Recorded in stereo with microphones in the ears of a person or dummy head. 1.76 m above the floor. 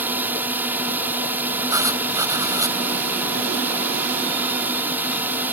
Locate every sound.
0.0 s a drone: 10° right (ahead or behind)
1.7 s writing: 15° right (ahead or behind)